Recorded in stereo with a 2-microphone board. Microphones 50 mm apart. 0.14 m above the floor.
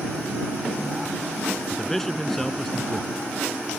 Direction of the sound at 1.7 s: 5° left (ahead or behind).